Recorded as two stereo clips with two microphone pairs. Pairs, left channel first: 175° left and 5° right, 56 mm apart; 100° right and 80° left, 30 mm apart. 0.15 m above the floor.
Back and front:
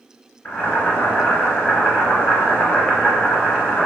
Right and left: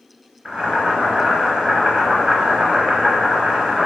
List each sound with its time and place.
0.5 s boiling: 165° left, 1.4 m